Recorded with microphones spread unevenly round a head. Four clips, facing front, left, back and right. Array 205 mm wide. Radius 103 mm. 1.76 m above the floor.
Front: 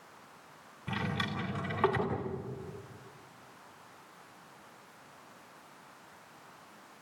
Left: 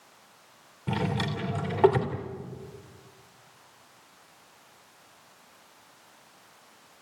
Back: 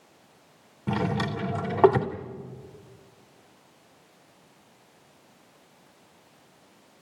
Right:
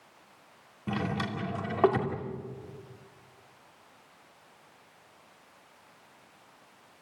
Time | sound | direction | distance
0.9 | a drawer | 175° right | 2.5 m